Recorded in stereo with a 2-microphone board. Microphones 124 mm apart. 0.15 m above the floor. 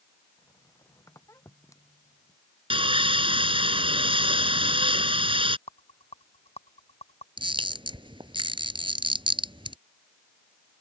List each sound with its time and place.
0.4 s a squeak: 25° left (ahead or behind)
2.7 s sawing: 45° right (ahead or behind)
5.7 s a rattle: 55° left (ahead or behind)
7.4 s a camera shutter: 45° right (ahead or behind)